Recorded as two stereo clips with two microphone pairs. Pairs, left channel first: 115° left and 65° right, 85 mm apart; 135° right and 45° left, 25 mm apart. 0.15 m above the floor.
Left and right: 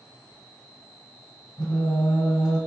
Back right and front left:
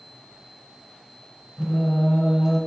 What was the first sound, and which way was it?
Singing, 135° left.